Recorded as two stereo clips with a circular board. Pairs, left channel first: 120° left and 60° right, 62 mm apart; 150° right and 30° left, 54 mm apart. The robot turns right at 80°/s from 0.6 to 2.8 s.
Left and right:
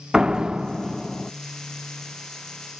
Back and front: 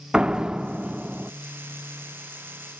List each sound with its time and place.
0.1 s a door slam: straight ahead, 0.7 m; by 1.3 s 55° left, 0.7 m